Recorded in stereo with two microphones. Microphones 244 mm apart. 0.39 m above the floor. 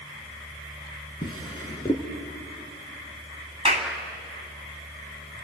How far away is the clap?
About 2.5 m.